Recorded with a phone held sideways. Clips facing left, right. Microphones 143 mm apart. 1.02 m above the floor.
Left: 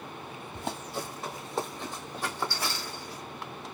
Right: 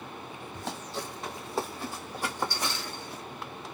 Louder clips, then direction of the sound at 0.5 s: Left 2 dB; 20° left (ahead or behind).